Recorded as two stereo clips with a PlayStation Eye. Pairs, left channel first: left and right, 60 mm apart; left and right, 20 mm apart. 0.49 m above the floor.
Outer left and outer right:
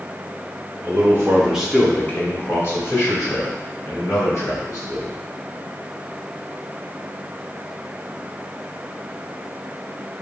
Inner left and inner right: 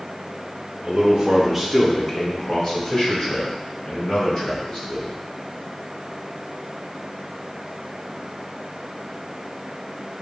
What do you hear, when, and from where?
0.8 s a man speaking: 40° right (ahead or behind), 0.9 m; by 5.2 s 55° left (ahead or behind), 3.5 m